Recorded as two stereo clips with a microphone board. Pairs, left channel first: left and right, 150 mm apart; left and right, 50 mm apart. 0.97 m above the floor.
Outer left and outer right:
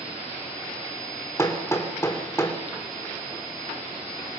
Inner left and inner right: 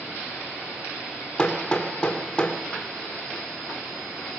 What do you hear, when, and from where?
1.4 s hammering: 20° left (ahead or behind), 3 m